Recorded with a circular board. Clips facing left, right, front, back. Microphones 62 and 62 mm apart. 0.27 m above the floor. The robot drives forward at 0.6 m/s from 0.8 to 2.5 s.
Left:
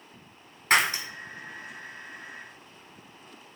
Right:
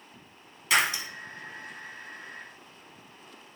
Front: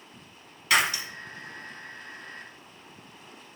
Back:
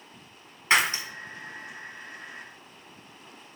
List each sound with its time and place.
0.7 s breaking glass: 125° left, 1.1 m; by 1.0 s 130° left, 1.1 m